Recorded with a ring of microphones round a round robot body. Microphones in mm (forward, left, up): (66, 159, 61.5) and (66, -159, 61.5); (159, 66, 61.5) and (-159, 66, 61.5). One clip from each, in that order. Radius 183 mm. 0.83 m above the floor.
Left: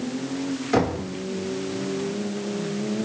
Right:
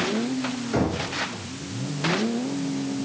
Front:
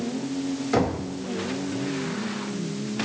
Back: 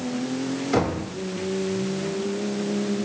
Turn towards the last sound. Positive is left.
turn(degrees=85)